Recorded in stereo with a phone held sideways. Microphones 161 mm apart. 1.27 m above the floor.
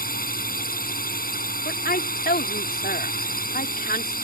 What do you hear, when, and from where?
0.0 s a drone: 65° left (ahead or behind)
1.6 s a woman speaking: 70° left (ahead or behind)